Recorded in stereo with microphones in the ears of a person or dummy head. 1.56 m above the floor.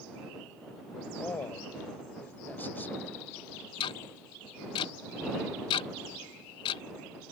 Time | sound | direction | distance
1.2 | a man speaking | 5° left (ahead or behind) | ?
3.8 | ticking | 35° left (ahead or behind) | ?